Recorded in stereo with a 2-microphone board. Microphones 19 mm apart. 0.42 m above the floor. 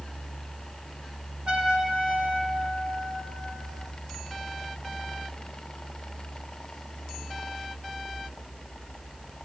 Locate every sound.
1.5 s a trumpet: 65° right (ahead or behind), 4 m